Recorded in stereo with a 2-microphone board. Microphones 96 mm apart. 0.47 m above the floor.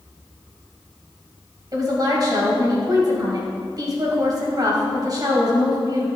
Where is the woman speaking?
40° right (ahead or behind), 2.5 m.